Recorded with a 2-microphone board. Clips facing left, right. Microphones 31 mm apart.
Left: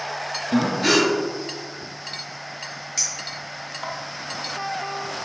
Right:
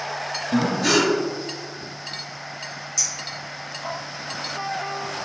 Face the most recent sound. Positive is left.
turn(degrees=70)  # may be behind; listen again after turning